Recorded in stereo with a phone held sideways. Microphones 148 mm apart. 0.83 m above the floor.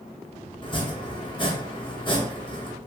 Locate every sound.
0.6 s chopping: 35° left (ahead or behind), 1.1 m